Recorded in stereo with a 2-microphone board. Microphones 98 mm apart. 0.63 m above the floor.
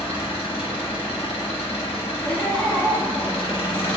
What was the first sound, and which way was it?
An engine running, 75° left (ahead or behind).